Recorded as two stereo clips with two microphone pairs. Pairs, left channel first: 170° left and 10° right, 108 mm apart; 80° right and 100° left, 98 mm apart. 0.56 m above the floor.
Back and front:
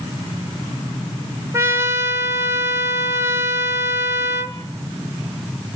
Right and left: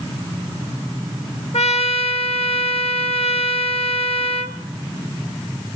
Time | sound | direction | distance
1.5 | a trumpet | 80° right | 1.0 m